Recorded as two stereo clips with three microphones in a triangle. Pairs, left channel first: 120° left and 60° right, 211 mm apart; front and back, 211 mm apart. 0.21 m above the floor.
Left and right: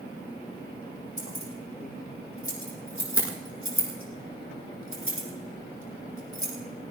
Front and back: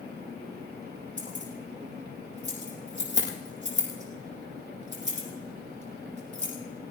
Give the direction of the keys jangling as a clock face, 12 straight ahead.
8 o'clock.